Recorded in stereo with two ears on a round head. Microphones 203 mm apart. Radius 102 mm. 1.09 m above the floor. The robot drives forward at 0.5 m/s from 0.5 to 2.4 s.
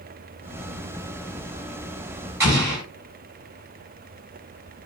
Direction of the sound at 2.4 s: 15° right (ahead or behind).